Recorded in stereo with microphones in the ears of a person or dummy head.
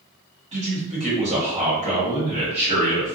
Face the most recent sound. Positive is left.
turn(degrees=-30)  # may be behind; listen again after turning